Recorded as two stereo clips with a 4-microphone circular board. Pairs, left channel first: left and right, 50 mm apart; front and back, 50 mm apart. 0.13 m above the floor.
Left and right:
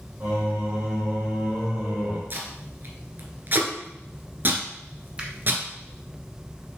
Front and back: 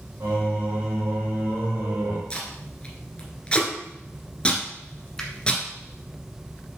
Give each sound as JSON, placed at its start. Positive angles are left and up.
{"t": 0.2, "sound": "singing", "azimuth_deg": -145, "distance_m": 4.0}
{"t": 2.3, "sound": "tape being pulled", "azimuth_deg": -65, "distance_m": 1.8}
{"t": 5.2, "sound": "a finger snap", "azimuth_deg": -60, "distance_m": 1.4}